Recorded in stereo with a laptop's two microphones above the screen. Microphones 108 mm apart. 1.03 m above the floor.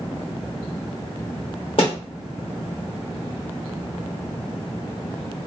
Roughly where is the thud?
Left.